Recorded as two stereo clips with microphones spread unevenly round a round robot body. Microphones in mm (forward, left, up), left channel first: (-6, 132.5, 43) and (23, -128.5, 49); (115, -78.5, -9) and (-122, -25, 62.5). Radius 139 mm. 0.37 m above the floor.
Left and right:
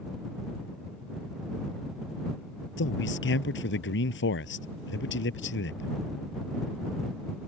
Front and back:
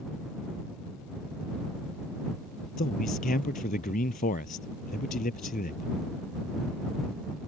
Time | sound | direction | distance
2.8 | a man speaking | 50° left | ?